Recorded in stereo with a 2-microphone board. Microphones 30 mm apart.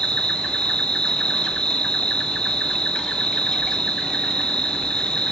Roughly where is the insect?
Left.